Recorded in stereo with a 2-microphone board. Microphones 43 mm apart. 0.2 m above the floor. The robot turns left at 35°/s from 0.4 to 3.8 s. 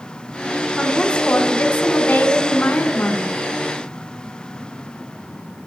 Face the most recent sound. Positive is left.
turn(degrees=45)